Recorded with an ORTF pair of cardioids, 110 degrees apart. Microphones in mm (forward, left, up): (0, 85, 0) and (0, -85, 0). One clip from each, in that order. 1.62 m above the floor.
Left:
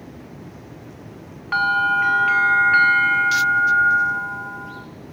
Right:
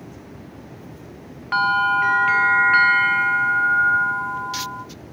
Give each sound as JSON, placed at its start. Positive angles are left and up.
{"t": 1.5, "sound": "a bell", "azimuth_deg": -10, "distance_m": 1.1}